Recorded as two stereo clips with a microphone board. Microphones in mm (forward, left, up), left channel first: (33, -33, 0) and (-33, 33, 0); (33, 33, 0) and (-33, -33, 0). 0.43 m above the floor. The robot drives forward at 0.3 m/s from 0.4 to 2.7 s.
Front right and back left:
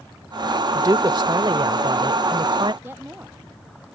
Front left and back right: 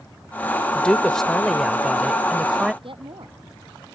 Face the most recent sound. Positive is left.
turn(degrees=-160)